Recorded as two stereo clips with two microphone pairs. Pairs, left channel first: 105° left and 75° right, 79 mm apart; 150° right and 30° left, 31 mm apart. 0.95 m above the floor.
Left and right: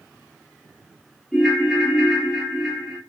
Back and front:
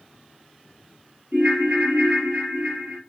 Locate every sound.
1.3 s a ringtone: 10° left, 2 m